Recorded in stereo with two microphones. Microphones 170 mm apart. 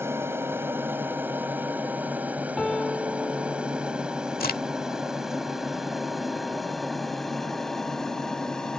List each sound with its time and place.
0.0 s an aircraft: 15° right (ahead or behind); by 8.8 s 5° left (ahead or behind)
2.6 s a piano: 5° left (ahead or behind)
4.4 s a crack: 65° left (ahead or behind)